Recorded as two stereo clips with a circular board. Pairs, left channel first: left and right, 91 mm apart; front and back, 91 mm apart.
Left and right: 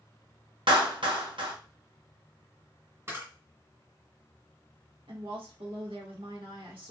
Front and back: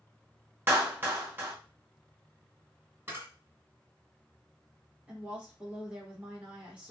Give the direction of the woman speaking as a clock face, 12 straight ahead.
3 o'clock.